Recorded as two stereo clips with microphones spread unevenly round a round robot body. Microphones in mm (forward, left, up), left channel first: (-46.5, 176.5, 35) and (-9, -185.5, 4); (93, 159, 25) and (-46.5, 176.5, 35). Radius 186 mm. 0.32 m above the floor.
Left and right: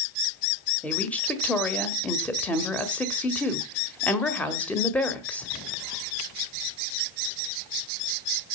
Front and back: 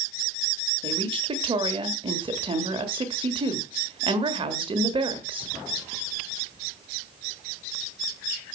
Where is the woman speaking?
175° right, 1.6 m.